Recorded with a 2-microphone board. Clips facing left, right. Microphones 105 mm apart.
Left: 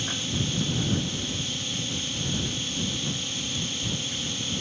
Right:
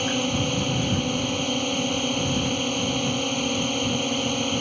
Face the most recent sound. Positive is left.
turn(degrees=-60)  # may be behind; listen again after turning